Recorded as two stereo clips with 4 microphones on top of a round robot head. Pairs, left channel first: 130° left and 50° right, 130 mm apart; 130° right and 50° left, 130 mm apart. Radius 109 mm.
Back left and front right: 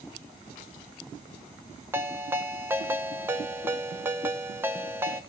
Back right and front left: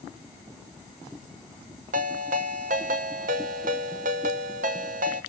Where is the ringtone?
25° left, 1.1 m.